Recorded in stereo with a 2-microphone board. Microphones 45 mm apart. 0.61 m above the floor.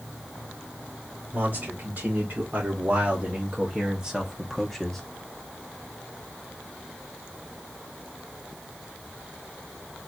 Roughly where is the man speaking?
Right.